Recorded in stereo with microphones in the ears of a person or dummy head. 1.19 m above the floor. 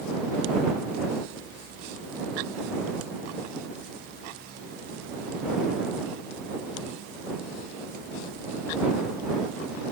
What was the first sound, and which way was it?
Only background noise.